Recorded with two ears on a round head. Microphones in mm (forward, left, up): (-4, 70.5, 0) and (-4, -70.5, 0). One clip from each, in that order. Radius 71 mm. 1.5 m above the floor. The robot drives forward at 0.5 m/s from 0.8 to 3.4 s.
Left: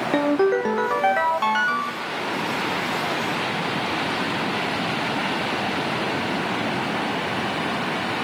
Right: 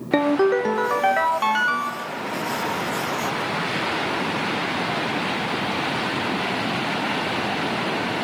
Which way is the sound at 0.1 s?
5° right (ahead or behind).